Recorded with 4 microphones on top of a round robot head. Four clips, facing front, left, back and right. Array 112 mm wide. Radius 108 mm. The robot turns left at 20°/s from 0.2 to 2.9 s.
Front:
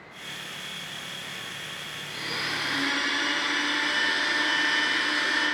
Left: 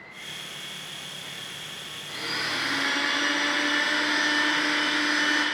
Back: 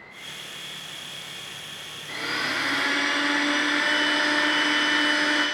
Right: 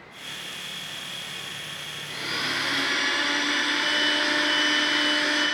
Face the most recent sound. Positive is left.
turn(degrees=155)